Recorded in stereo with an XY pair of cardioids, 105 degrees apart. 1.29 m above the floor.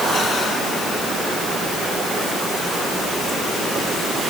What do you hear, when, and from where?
Only background noise.